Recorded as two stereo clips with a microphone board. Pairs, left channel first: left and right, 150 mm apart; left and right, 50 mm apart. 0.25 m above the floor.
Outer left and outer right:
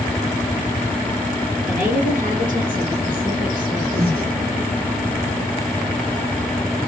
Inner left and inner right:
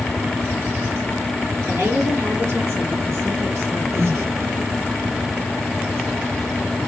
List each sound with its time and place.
1.6 s a woman speaking: 60° right (ahead or behind), 2.5 m; by 3.8 s 65° right (ahead or behind), 3.5 m
3.9 s breathing: 65° right (ahead or behind), 2 m